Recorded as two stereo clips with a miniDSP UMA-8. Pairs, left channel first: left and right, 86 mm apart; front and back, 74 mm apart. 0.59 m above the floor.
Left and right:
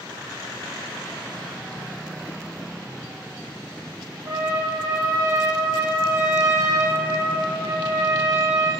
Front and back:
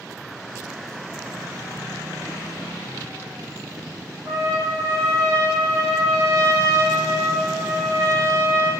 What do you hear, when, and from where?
4.2 s a trumpet: 140° right, 7 m